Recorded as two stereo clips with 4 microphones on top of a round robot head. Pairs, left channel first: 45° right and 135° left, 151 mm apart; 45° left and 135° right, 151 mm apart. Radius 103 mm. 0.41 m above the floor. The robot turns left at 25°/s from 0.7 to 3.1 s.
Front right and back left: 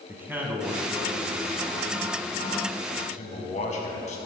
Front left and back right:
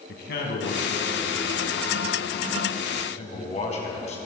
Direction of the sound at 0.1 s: 60° left.